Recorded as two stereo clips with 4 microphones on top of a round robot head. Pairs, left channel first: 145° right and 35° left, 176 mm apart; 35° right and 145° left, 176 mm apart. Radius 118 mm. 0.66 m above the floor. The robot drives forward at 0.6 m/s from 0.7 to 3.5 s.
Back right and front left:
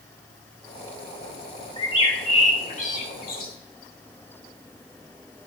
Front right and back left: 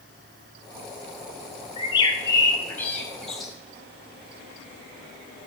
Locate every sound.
1.8 s a bird: 85° right, 1.6 m; by 3.5 s 130° right, 1.9 m